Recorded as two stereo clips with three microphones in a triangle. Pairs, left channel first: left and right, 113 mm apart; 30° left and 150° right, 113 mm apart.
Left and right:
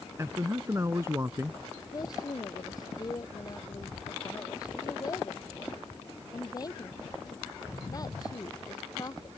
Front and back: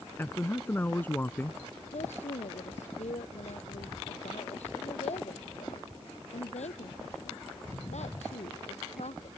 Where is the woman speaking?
35° left.